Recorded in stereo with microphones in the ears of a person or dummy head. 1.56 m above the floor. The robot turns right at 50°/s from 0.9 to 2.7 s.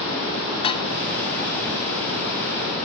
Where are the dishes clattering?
30° left (ahead or behind).